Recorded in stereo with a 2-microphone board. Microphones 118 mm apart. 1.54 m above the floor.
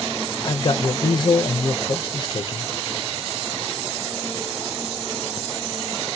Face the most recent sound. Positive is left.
turn(degrees=40)  # may be behind; listen again after turning